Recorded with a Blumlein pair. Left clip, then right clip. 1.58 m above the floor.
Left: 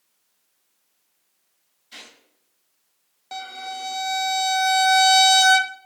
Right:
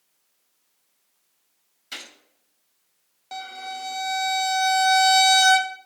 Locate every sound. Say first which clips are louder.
1.9 s a gunshot: right 5 dB; 35° right, 5.5 m
3.3 s a violin: left 1 dB; 5° left, 0.7 m